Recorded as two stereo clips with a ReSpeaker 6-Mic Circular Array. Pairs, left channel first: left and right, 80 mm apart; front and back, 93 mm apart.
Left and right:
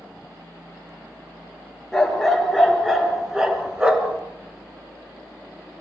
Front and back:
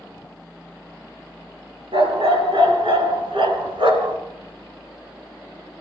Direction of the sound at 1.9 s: 175° left.